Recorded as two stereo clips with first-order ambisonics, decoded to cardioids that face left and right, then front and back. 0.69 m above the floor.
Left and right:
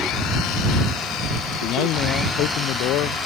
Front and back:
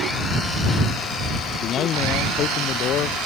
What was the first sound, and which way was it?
A man speaking, 50° left.